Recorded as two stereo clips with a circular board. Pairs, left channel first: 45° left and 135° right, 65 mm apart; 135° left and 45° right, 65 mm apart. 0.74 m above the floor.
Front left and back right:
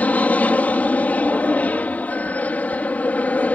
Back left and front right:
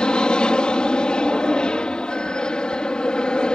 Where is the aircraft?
75° left.